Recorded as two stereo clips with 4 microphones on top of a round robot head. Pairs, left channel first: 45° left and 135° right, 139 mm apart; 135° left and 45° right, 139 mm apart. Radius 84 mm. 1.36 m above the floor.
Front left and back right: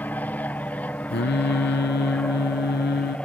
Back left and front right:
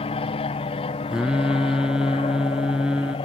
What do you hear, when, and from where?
0.0 s an aircraft: 115° left; by 3.3 s 120° left
1.1 s singing: 40° left